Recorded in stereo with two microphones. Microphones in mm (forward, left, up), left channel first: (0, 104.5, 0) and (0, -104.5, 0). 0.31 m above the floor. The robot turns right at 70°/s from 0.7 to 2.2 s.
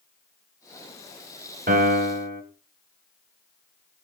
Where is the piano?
105° right, 1.4 m; by 2.4 s 70° right, 1.4 m.